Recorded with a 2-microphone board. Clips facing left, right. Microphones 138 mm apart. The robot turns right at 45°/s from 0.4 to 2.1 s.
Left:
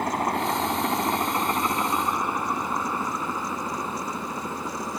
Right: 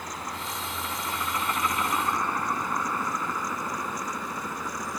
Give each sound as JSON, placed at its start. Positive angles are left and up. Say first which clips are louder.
{"t": 0.0, "sound": "a helicopter", "louder": "left 11 dB", "side_deg": 60}